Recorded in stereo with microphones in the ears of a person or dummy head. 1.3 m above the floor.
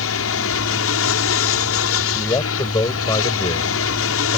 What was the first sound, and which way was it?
An aircraft, 70° left (ahead or behind).